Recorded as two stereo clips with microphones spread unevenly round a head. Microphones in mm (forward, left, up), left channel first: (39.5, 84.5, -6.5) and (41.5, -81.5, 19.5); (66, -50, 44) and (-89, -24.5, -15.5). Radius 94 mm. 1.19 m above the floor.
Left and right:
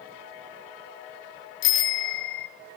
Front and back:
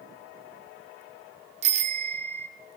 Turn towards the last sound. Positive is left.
turn(degrees=115)